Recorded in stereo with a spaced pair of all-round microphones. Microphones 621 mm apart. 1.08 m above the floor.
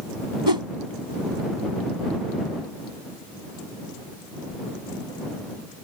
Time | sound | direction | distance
0.5 | a whoosh | 40° right (ahead or behind) | ?